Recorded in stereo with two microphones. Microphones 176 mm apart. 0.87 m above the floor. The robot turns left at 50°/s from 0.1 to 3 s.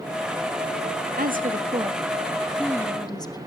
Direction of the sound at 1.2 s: 115° right.